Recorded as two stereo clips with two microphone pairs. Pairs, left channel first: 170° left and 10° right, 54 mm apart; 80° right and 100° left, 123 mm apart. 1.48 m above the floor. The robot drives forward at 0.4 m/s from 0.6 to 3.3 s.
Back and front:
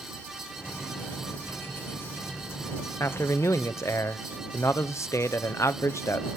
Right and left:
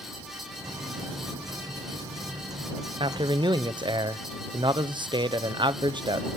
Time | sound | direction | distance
3.0 | a man speaking | 140° left | 0.7 m